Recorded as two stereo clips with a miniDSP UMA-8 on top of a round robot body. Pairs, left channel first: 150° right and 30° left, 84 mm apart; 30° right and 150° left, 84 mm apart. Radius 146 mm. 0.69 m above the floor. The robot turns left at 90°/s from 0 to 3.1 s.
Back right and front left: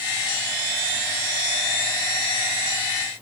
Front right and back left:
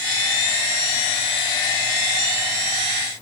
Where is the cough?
I don't hear a cough.